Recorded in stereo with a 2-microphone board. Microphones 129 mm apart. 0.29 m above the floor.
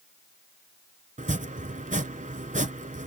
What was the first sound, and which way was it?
Chopping, 80° right.